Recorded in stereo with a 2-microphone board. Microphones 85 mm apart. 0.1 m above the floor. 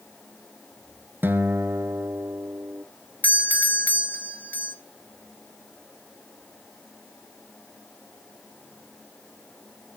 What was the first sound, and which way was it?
A guitar, 25° right (ahead or behind).